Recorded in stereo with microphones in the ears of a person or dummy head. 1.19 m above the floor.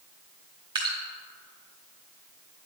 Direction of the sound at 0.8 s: 25° right (ahead or behind).